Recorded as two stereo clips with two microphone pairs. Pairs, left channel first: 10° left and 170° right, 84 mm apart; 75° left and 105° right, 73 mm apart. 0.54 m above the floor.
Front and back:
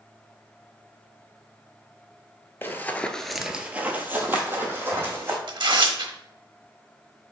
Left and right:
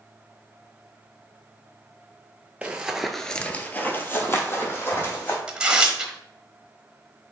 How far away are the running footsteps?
About 0.6 m.